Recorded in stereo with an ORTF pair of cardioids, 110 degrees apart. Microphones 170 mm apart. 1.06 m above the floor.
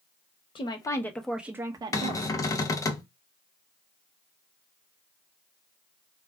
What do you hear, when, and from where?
0.6 s a woman speaking: 30° left, 1.0 m; by 2.4 s 45° right, 1.0 m
1.9 s a cupboard door: 20° left, 0.6 m